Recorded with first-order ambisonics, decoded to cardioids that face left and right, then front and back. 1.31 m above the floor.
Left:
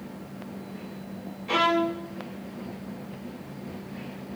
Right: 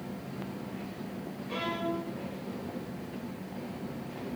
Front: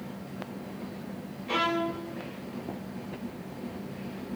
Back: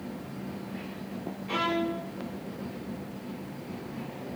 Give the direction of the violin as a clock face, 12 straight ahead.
9 o'clock.